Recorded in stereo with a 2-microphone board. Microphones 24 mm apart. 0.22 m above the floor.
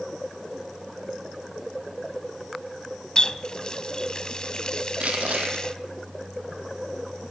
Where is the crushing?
65° right (ahead or behind), 5 m.